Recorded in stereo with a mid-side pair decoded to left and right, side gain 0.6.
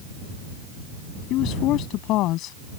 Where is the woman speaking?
65° left.